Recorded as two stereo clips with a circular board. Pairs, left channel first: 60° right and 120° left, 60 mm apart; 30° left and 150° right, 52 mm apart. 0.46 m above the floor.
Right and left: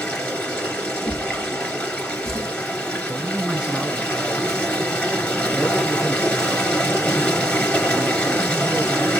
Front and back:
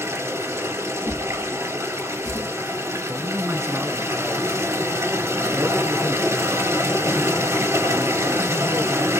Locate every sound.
0.0 s running water: 135° right, 2.5 m
1.1 s a drawer: 140° right, 1.8 m
3.1 s a man speaking: 170° right, 1.8 m